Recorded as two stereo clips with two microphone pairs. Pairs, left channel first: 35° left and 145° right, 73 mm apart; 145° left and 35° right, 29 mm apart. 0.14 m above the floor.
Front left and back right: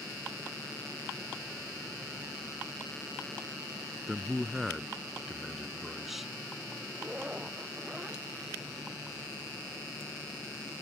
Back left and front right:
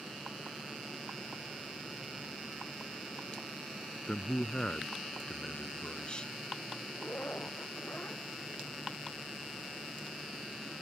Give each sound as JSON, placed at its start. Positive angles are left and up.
{"t": 4.1, "sound": "a man speaking", "azimuth_deg": 130}
{"t": 7.0, "sound": "a zipper", "azimuth_deg": 140}